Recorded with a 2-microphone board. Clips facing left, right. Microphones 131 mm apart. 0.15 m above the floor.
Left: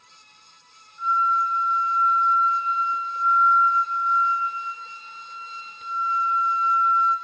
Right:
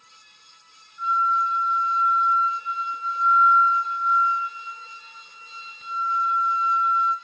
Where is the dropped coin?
I don't hear a dropped coin.